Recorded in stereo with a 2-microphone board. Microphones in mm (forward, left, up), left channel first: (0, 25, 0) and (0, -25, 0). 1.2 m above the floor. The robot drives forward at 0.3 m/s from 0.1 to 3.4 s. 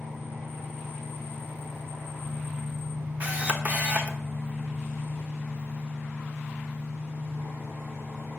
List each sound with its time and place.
0.0 s an engine running: 85° right, 3.5 m; by 8.4 s 70° right (ahead or behind), 4 m
3.2 s a camera shutter: 35° right (ahead or behind), 0.6 m; by 4.2 s 30° right (ahead or behind), 0.7 m